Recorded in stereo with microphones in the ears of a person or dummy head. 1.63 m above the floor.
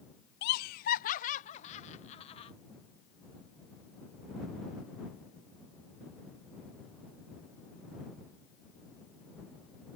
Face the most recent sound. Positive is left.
turn(degrees=35)  # may be behind; listen again after turning